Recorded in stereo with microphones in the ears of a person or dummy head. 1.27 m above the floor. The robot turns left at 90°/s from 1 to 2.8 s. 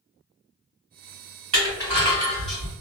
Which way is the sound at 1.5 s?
35° right (ahead or behind).